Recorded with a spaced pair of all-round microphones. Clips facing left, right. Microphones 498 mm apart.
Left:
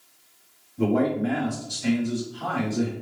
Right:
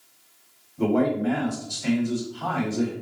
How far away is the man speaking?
About 1.2 m.